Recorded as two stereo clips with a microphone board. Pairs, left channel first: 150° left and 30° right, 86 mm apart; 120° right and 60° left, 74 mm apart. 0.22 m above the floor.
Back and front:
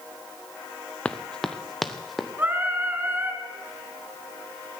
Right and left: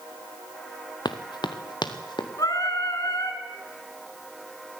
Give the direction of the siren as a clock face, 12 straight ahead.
No siren in this recording.